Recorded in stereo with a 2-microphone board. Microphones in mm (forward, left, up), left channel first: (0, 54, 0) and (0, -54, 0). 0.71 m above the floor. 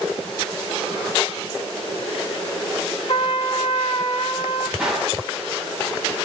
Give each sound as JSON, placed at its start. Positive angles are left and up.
{"t": 3.1, "sound": "a trumpet", "side_deg": 50, "distance_m": 0.7}
{"t": 4.8, "sound": "a gunshot", "side_deg": -10, "distance_m": 4.5}